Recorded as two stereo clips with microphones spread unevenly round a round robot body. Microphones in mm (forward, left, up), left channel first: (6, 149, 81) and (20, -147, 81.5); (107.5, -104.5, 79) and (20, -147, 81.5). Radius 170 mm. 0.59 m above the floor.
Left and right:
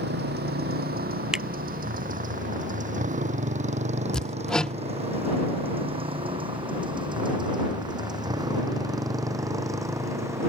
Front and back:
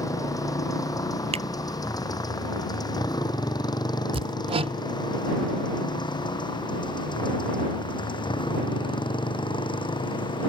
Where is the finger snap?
175° right.